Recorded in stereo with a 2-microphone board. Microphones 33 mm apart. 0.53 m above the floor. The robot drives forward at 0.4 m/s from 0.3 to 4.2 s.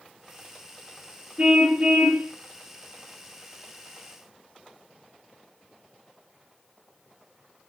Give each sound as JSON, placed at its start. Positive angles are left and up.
{"t": 1.4, "sound": "a car horn", "side_deg": -40, "distance_m": 4.5}